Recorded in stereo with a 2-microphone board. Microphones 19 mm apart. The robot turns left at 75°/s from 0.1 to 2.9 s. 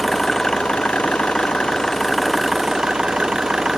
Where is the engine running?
170° left; by 3.8 s 40° right.